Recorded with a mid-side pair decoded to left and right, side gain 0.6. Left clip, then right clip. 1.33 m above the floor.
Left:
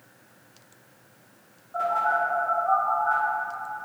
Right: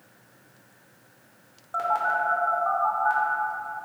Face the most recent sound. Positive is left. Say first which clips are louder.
# left 1 dB
turn(degrees=-50)